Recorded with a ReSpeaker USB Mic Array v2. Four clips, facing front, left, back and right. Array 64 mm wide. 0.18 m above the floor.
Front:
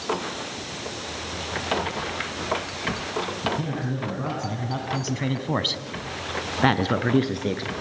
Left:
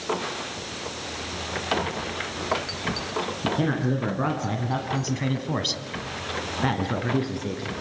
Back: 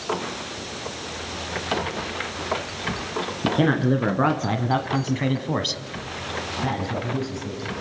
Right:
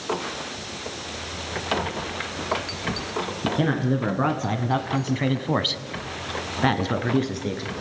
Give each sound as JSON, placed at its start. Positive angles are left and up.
{"t": 3.4, "sound": "a man speaking", "azimuth_deg": -170, "distance_m": 2.5}